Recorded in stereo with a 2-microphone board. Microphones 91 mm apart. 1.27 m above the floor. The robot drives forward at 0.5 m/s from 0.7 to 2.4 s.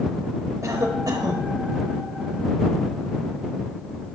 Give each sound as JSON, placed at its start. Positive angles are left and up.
{"t": 0.6, "sound": "a cough", "side_deg": -35, "distance_m": 1.3}